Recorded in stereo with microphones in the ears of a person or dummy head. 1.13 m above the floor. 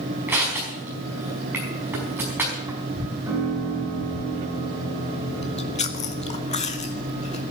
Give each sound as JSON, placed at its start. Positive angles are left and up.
{"t": 0.3, "sound": "crushing", "side_deg": -10, "distance_m": 5.0}
{"t": 3.3, "sound": "a piano", "side_deg": -15, "distance_m": 5.5}
{"t": 5.4, "sound": "chewing", "side_deg": 30, "distance_m": 0.7}